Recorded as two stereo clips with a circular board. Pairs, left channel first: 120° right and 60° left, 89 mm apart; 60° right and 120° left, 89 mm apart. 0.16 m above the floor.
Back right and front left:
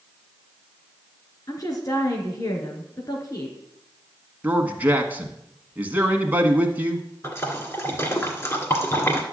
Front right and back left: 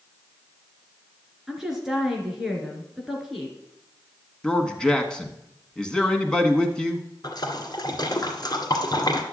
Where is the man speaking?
10° left, 1.2 m.